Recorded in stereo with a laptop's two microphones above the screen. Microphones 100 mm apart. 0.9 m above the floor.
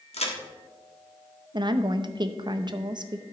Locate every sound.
0.1 s a crack: 80° left, 1.4 m
1.5 s a woman speaking: 45° right (ahead or behind), 0.5 m